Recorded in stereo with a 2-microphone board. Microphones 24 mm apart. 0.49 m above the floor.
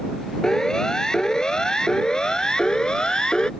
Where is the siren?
25° left (ahead or behind); by 3.5 s 35° left (ahead or behind).